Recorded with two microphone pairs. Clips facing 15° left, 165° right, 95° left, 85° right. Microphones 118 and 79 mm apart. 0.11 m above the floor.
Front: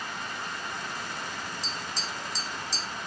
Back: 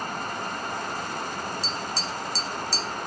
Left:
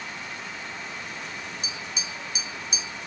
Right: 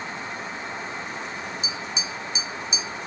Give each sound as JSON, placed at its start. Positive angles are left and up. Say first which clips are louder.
{"t": 1.6, "sound": "tapping", "louder": "back 5 dB, right 4 dB", "azimuth_deg": 80, "distance_m": 2.0}